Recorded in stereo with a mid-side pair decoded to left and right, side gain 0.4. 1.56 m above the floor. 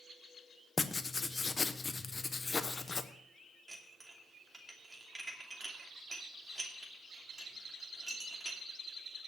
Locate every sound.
0.8 s writing: 30° left, 1.0 m
3.7 s dishes clattering: 20° right, 2.5 m